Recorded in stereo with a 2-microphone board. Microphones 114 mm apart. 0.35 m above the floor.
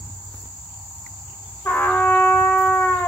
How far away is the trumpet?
About 1.4 m.